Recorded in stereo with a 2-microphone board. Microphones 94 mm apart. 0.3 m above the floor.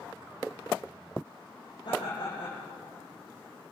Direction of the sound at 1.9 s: 60° left (ahead or behind).